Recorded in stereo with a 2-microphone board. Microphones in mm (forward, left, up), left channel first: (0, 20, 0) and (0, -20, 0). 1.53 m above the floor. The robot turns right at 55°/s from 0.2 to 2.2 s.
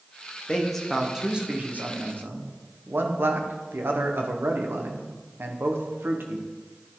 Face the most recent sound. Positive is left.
turn(degrees=-110)